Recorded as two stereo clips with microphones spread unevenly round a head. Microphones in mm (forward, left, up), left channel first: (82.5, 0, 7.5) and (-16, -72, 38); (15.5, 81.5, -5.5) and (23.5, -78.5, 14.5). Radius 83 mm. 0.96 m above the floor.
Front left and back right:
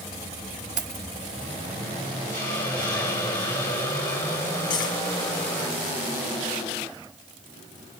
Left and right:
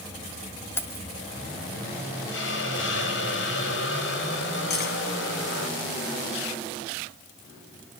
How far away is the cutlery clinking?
About 5 m.